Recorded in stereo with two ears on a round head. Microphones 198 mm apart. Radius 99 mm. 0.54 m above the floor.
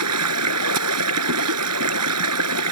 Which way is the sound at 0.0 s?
80° right.